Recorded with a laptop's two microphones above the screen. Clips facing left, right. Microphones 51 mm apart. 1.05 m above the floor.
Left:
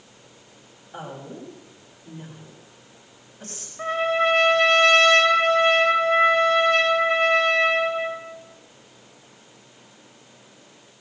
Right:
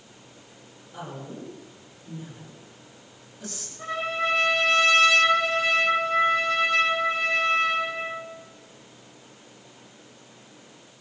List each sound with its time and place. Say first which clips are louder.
0.9 s a woman speaking: left 1 dB; 45° left (ahead or behind), 6.5 m
3.8 s a trumpet: left 6 dB; 55° left (ahead or behind), 6.5 m